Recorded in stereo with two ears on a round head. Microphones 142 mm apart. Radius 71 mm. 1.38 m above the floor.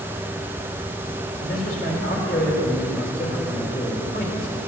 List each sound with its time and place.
1.4 s a man speaking: 55° left (ahead or behind), 3 m